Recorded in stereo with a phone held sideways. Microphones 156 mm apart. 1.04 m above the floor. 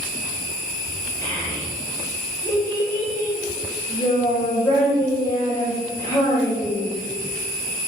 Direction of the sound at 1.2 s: 25° left (ahead or behind).